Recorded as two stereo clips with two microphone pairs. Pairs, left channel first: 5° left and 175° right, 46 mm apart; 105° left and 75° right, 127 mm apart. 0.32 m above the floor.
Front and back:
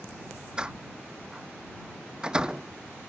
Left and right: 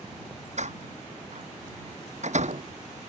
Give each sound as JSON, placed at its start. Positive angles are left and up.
{"t": 0.6, "sound": "a door slam", "azimuth_deg": -100}